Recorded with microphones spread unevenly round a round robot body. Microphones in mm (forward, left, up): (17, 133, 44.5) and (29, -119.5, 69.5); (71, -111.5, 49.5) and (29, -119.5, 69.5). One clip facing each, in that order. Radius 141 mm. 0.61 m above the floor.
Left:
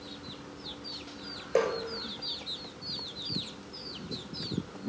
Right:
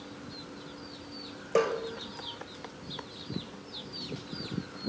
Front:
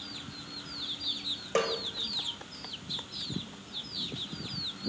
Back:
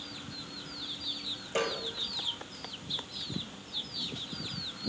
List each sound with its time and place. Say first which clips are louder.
1.6 s a snare drum: right 1 dB, front 3 dB; 10° right, 6.5 m